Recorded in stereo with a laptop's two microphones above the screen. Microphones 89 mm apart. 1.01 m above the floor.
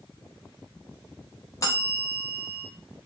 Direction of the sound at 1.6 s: 35° left (ahead or behind).